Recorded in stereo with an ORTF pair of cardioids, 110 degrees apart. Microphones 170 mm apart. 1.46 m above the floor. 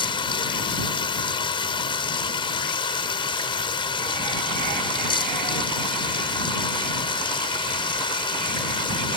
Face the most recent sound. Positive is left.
turn(degrees=30)